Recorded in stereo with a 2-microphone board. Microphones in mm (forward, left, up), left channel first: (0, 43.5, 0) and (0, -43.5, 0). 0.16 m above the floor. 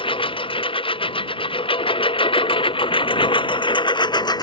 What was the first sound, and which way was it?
A lawn mower, 85° left.